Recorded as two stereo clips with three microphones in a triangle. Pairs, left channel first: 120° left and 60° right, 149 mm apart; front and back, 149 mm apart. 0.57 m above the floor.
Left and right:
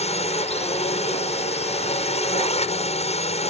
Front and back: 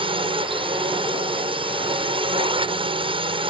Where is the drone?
140° left.